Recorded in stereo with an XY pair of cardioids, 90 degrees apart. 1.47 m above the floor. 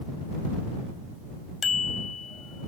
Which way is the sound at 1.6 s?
50° left.